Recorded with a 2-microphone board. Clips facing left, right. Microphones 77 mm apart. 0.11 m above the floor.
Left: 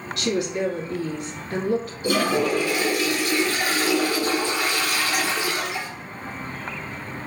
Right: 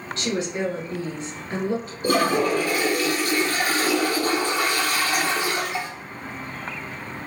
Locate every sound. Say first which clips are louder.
0.2 s a woman speaking: left 2 dB; 35° right (ahead or behind), 1.7 m
2.0 s a toilet flushing: right 2 dB; 45° right (ahead or behind), 1.0 m